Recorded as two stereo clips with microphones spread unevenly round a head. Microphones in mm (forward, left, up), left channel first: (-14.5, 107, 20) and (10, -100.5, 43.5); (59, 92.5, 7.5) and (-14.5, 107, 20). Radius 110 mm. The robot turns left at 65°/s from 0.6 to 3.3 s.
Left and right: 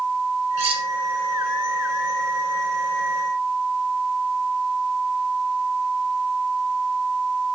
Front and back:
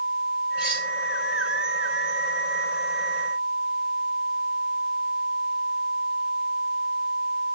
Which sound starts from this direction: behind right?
Cutlery clinking, at 0.6 s.